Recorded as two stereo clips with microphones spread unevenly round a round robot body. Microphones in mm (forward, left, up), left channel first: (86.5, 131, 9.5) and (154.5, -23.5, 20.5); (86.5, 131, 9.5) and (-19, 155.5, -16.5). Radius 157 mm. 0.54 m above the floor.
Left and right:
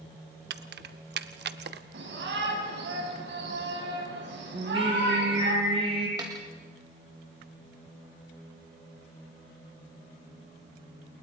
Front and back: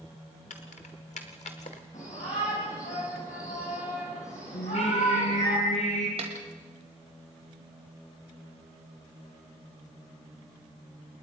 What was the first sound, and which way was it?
Keys jangling, 60° right.